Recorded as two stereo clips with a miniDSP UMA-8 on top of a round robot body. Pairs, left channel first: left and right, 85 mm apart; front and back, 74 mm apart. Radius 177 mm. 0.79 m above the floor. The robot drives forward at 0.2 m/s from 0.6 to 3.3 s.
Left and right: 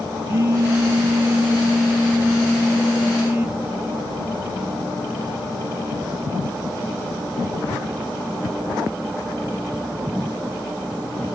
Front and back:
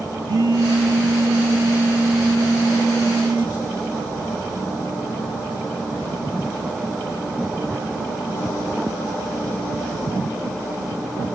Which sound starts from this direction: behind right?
A phone buzzing, at 0.3 s.